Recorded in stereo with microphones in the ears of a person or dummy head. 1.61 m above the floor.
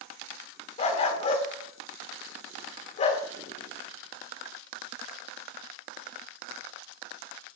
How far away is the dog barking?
About 2 m.